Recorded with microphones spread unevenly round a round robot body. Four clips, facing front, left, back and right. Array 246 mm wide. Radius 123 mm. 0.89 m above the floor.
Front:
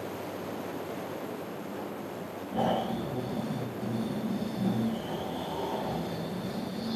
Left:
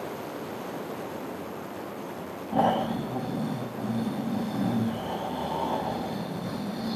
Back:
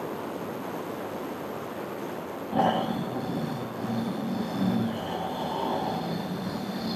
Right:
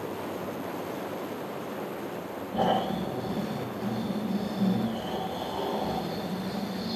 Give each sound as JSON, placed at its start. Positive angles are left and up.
{"t": 2.5, "sound": "snoring", "azimuth_deg": 125, "distance_m": 10.0}